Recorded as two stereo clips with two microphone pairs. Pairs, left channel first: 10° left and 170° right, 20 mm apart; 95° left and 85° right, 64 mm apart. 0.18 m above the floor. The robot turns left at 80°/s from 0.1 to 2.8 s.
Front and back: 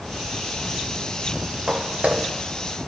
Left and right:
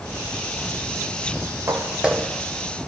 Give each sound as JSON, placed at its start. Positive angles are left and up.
{"t": 1.7, "sound": "footsteps", "azimuth_deg": -125, "distance_m": 1.5}